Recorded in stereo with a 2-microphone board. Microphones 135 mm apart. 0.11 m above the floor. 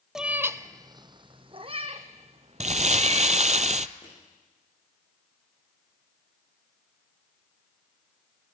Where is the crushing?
35° left (ahead or behind), 9 m.